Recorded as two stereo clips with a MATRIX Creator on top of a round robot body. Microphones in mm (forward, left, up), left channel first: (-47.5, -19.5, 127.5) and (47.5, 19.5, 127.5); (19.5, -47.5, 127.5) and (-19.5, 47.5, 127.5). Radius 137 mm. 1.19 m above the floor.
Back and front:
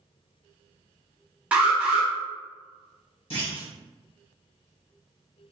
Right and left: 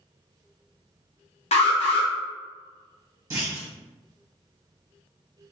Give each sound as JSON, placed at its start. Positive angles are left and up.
{"t": 1.5, "sound": "an alarm", "azimuth_deg": -55, "distance_m": 0.8}
{"t": 3.3, "sound": "a clunk", "azimuth_deg": 175, "distance_m": 1.4}